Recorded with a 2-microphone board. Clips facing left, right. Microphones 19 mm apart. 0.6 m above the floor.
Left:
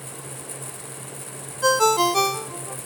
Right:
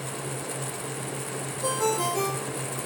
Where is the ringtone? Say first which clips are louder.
Left 9 dB; 65° left (ahead or behind), 0.8 m.